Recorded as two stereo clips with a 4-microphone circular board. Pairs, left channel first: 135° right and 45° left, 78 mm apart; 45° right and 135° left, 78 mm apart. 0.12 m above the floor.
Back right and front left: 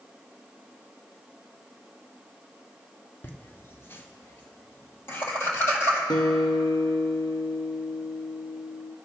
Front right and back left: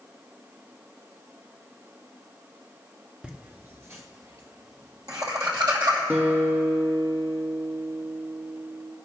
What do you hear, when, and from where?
3.2 s laughter: 165° right, 1.4 m; by 6.0 s 165° left, 4 m
6.1 s a guitar: 165° right, 1.4 m